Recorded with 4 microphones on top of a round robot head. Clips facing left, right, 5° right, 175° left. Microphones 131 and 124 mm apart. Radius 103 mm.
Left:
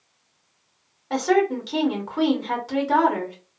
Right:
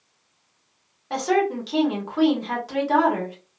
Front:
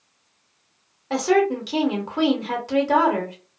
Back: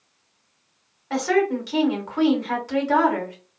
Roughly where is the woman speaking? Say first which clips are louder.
Left 2 dB, front 2 dB; ahead.